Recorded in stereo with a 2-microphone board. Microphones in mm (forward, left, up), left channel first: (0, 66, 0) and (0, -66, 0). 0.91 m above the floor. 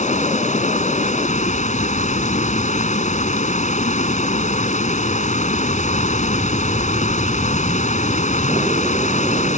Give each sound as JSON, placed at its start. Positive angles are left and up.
{"t": 0.0, "sound": "running water", "side_deg": 65}